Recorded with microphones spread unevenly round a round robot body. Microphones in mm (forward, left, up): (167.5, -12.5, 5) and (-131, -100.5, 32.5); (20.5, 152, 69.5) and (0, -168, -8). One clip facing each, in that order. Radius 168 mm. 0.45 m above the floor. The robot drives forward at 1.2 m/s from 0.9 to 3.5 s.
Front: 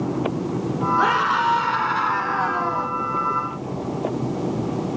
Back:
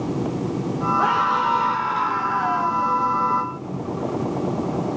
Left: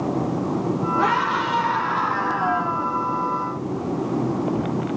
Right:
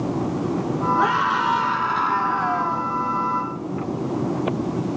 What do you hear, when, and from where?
1.0 s a scream: 35° right, 5 m; by 2.9 s 60° right, 3.5 m